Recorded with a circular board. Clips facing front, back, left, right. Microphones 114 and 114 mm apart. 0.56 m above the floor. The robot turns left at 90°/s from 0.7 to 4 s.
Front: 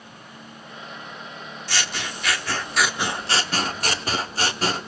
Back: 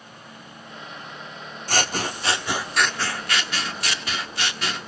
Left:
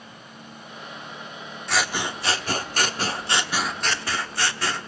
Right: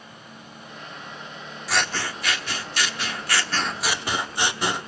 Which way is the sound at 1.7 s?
175° right.